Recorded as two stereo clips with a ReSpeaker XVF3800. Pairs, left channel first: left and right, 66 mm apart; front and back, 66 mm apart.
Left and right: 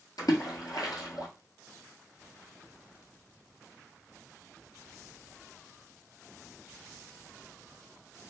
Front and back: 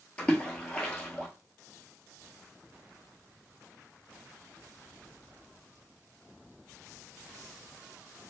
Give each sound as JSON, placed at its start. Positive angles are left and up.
{"t": 0.2, "sound": "a splash", "azimuth_deg": 70, "distance_m": 1.3}